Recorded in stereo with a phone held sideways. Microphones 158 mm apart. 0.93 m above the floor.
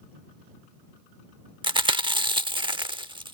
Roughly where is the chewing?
Right.